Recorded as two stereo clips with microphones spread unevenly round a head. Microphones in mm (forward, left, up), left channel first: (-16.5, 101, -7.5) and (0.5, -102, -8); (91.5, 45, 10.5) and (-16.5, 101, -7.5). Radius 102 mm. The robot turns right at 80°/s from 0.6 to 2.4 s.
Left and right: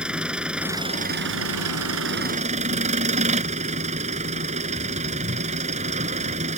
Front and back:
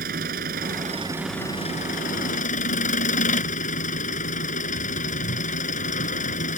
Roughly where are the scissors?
I don't hear scissors.